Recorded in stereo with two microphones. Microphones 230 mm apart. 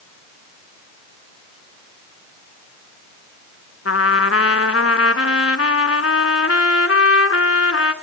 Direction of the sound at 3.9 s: 85° left.